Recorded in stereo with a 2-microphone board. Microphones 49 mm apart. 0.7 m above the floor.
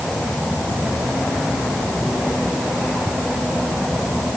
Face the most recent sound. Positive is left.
No sound to turn to.